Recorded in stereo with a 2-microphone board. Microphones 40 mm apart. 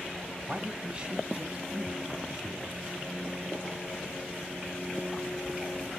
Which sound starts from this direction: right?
A man speaking, at 0.5 s.